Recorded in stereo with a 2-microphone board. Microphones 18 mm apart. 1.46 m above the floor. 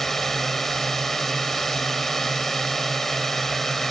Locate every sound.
0.0 s a drone: 15° left (ahead or behind)